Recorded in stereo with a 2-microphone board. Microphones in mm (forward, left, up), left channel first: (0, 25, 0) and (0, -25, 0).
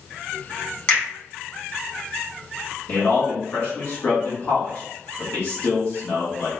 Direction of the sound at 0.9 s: 20° left (ahead or behind).